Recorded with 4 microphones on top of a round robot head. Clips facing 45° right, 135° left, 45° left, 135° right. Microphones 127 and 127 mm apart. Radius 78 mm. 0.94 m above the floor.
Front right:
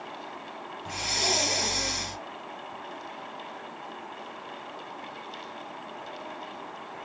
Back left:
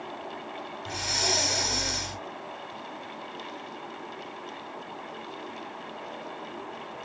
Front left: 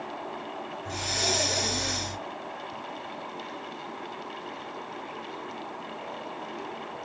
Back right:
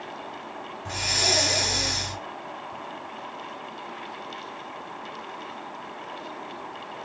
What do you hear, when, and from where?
0.8 s breathing: 120° right, 1.0 m